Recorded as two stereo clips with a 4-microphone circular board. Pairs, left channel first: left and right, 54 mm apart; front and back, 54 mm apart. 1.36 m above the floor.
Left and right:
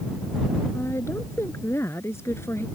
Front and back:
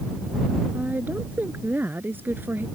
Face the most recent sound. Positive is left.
turn(degrees=125)